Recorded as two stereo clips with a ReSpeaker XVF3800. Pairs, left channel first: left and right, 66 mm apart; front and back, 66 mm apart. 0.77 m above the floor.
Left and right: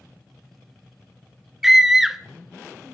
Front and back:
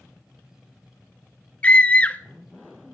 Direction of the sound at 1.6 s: 15° right.